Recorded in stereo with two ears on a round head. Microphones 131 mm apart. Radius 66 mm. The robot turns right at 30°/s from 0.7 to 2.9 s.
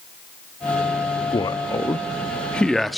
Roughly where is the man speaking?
Left.